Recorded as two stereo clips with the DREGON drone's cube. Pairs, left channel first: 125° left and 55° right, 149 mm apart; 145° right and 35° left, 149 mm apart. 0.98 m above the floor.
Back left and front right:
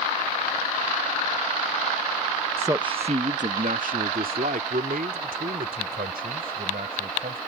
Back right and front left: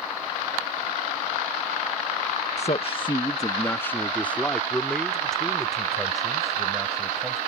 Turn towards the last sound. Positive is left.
turn(degrees=-55)